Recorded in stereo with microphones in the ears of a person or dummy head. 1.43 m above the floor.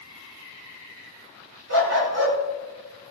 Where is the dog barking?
70° right (ahead or behind), 5.5 m.